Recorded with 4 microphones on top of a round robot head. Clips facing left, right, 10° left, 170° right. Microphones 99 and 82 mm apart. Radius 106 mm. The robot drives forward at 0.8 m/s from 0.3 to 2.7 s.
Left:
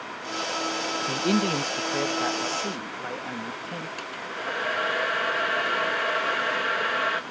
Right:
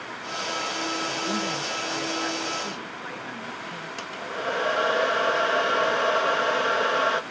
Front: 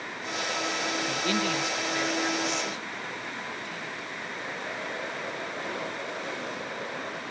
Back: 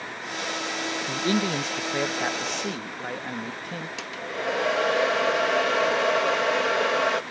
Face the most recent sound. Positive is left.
turn(degrees=-160)